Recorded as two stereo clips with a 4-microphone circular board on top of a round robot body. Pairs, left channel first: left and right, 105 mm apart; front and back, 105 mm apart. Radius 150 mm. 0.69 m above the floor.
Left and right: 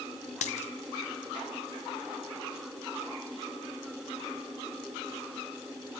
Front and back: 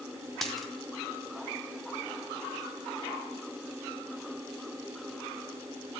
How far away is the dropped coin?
About 0.5 m.